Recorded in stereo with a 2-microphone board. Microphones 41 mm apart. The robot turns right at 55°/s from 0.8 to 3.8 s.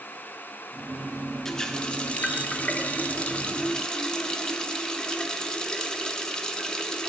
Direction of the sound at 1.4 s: 20° left.